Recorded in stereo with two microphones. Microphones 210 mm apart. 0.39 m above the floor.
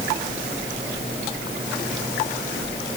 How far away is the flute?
I don't hear a flute.